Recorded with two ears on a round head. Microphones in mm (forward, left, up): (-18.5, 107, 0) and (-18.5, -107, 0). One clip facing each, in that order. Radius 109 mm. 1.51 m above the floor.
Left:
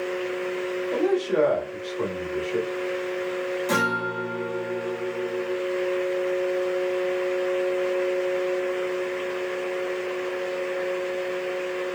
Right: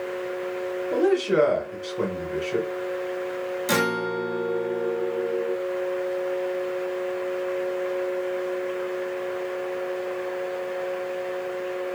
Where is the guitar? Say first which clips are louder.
Right 2 dB; 30° right (ahead or behind), 1.0 m.